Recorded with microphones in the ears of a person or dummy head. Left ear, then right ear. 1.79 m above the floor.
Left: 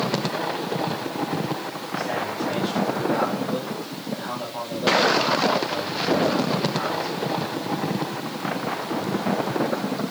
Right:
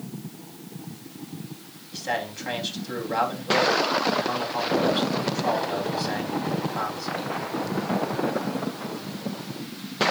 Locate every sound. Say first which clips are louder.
1.9 s a man speaking: left 1 dB; 50° right (ahead or behind), 3.5 m